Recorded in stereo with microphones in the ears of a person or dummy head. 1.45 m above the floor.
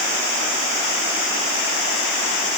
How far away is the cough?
No cough in this recording.